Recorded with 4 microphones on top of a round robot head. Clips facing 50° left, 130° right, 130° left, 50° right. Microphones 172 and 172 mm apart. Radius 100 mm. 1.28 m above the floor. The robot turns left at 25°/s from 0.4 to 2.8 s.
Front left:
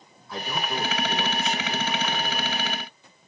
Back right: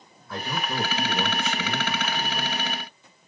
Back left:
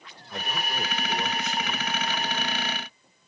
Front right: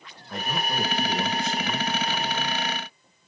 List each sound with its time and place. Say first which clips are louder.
0.3 s a man speaking: even, front right 4 dB; 90° right, 1.5 m; by 2.6 s 145° right, 1.5 m